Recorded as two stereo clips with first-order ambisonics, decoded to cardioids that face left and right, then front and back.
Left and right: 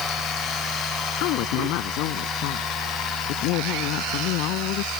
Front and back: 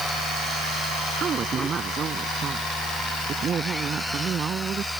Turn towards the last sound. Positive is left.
turn(degrees=115)